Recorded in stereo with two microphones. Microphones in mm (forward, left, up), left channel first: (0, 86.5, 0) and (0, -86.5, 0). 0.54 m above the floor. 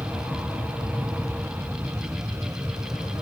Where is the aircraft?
10° right (ahead or behind); by 3.2 s 15° right (ahead or behind).